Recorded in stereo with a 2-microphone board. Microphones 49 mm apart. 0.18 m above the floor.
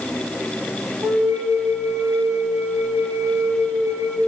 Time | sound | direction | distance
1.0 | a flute | 85° right | 3 m